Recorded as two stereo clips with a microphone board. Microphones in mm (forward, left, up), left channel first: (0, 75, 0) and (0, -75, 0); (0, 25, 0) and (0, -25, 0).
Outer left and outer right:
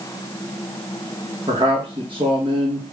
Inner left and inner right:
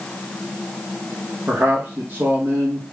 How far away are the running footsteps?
No running footsteps in this recording.